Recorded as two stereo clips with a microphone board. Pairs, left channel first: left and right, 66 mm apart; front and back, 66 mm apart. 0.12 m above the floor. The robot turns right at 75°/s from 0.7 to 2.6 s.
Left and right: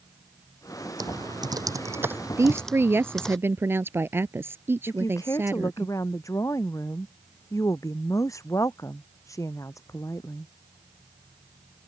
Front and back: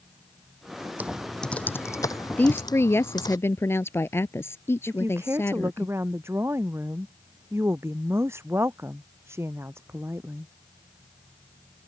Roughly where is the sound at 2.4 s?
Ahead right.